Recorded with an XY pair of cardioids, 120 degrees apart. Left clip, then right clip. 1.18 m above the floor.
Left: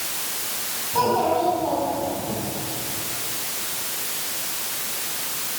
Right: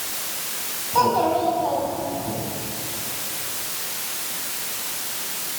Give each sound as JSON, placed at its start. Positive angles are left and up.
{"t": 0.9, "sound": "a child speaking", "azimuth_deg": -25, "distance_m": 5.0}